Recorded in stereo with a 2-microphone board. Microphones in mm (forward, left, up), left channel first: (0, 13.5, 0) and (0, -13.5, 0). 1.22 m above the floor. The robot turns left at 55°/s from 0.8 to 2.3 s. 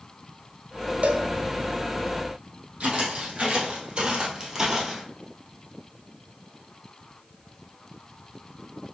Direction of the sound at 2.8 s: 50° right (ahead or behind).